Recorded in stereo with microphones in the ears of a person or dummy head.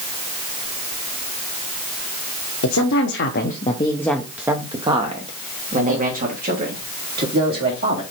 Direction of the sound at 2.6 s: 75° left (ahead or behind).